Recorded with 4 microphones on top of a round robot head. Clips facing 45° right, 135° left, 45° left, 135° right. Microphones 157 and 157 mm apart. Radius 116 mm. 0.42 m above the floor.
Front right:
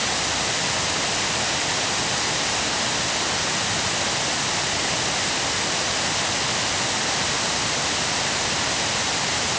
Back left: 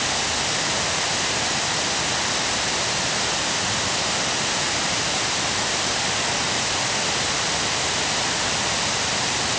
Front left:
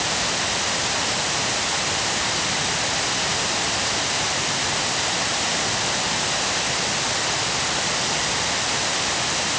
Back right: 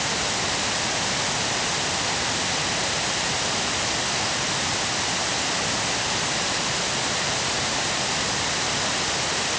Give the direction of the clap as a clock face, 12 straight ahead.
I don't hear a clap.